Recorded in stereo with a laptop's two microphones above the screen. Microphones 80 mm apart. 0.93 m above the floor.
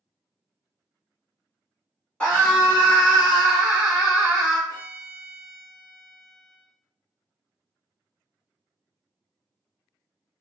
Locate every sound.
2.2 s a scream: 10° left (ahead or behind), 1.0 m; by 4.6 s 15° right (ahead or behind), 1.0 m
4.7 s a violin: 40° left (ahead or behind), 0.8 m